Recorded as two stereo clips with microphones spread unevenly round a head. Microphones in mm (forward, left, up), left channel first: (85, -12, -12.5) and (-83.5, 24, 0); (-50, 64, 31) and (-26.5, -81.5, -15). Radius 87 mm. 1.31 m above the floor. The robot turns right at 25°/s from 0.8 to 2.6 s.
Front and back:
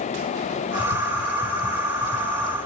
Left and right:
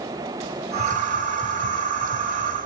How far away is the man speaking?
No man speaking in this recording.